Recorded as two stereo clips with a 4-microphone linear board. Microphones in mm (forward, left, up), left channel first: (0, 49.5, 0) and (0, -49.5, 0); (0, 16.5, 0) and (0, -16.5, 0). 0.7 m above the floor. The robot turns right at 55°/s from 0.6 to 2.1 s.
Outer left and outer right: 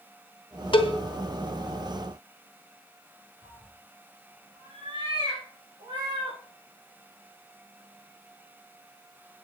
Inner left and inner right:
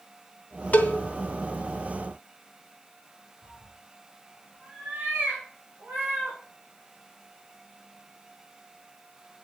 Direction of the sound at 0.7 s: 60° left (ahead or behind).